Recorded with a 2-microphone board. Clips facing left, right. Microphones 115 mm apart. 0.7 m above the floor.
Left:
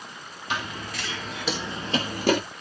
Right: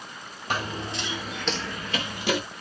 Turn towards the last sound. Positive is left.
turn(degrees=50)  # may be behind; listen again after turning